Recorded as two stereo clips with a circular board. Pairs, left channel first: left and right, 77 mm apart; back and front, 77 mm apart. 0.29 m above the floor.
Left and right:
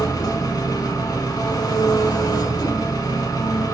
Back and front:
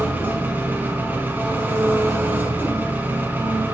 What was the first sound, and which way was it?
An engine running, 65° left.